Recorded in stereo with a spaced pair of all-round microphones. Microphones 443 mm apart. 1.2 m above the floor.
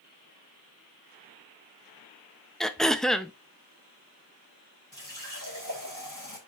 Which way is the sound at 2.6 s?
Centre (ahead or behind).